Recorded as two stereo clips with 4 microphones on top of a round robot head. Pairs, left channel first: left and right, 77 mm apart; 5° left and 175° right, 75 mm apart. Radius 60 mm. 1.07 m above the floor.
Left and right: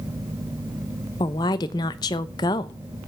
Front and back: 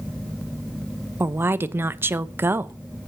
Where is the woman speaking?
125° left, 0.7 m.